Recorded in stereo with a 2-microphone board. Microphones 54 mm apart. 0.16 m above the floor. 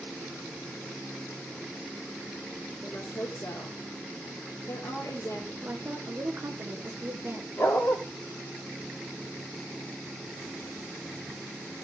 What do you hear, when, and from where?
2.8 s a woman speaking: 65° left (ahead or behind), 4 m
5.6 s a woman speaking: 40° right (ahead or behind), 2.5 m
7.6 s a dog barking: 50° left (ahead or behind), 4 m